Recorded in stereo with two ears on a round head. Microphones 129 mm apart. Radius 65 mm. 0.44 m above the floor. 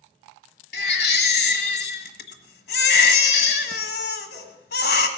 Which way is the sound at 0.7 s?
80° left.